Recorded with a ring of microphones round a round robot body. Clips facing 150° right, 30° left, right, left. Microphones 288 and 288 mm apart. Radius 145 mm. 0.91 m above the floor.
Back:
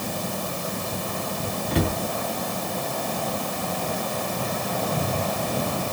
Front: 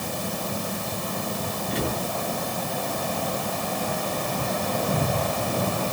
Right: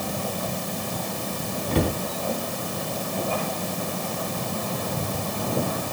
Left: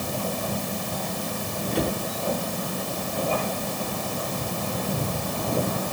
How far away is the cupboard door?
About 4.5 m.